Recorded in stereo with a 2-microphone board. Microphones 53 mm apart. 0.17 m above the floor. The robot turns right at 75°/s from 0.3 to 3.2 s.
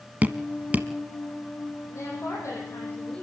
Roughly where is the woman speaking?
Ahead left.